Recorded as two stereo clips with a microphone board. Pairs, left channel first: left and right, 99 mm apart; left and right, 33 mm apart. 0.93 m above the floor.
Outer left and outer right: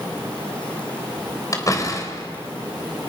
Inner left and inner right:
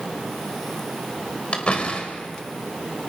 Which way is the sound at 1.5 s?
40° left (ahead or behind).